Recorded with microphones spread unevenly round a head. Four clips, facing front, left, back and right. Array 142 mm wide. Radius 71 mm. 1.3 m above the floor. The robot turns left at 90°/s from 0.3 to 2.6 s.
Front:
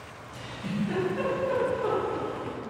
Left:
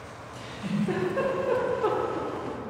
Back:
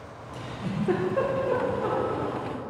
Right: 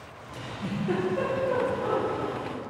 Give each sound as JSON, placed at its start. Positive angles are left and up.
{"t": 0.3, "sound": "a giggle", "azimuth_deg": -130, "distance_m": 1.3}